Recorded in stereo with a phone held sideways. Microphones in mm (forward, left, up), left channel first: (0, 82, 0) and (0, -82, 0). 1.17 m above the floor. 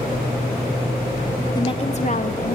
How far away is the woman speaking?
About 1.7 m.